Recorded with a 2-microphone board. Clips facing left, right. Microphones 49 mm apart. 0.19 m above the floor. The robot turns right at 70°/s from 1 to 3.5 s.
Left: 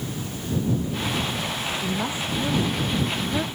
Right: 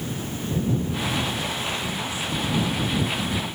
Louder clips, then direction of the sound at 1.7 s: Left 2 dB; 5° left.